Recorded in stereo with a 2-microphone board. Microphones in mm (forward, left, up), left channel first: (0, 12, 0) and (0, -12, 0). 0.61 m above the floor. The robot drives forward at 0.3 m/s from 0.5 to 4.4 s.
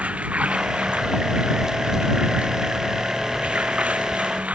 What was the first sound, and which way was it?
Running water, 65° right (ahead or behind).